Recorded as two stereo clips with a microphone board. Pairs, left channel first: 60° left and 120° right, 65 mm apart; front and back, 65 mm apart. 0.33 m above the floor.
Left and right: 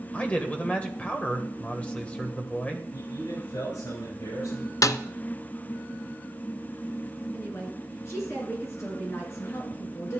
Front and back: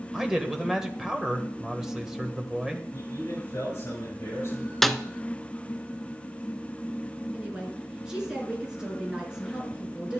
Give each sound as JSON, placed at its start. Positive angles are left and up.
{"t": 0.1, "sound": "a man speaking", "azimuth_deg": 105, "distance_m": 1.3}
{"t": 2.9, "sound": "a man speaking", "azimuth_deg": 45, "distance_m": 5.5}
{"t": 4.8, "sound": "a snare drum", "azimuth_deg": 85, "distance_m": 0.5}
{"t": 7.3, "sound": "a woman speaking", "azimuth_deg": 105, "distance_m": 4.0}